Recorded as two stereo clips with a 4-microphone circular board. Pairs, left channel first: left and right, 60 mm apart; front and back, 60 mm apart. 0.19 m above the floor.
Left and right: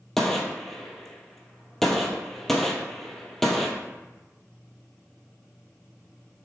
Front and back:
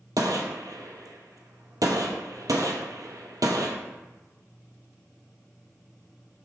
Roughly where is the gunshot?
Behind.